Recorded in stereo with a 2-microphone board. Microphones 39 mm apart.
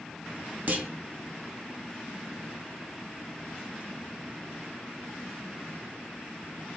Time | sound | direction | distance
0.7 | a clunk | 45° right (ahead or behind) | 0.6 m